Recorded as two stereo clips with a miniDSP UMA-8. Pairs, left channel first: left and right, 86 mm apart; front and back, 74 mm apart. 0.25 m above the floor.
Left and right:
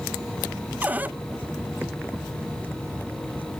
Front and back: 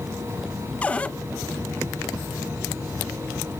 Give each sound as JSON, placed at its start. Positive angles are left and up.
{"t": 0.8, "sound": "a cupboard door", "azimuth_deg": -50, "distance_m": 0.7}